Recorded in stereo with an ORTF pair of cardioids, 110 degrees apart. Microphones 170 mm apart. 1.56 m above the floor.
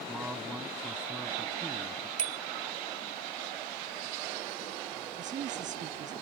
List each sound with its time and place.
0.1 s a man speaking: 5° right
2.2 s a bicycle bell: 55° right
5.2 s a woman speaking: 45° right